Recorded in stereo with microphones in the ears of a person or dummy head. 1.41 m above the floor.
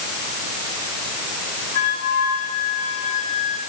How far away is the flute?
About 6.5 m.